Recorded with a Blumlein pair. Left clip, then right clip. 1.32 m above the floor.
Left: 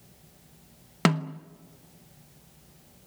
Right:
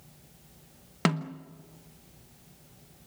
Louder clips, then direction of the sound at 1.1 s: Left 3 dB; 10° left.